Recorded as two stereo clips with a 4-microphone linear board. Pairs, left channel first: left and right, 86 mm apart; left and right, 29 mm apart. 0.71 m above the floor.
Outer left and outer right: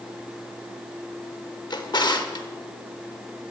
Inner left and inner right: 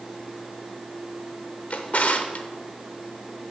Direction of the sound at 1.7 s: 55° left (ahead or behind).